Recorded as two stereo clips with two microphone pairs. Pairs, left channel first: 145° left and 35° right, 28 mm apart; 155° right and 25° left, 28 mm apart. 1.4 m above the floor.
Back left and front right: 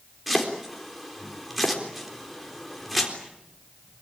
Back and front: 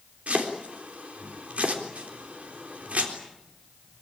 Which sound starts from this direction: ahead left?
Chopping, at 0.3 s.